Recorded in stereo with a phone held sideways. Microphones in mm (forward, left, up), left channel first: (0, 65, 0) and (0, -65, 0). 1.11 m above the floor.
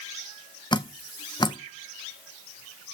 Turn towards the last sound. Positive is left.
turn(degrees=35)  # may be behind; listen again after turning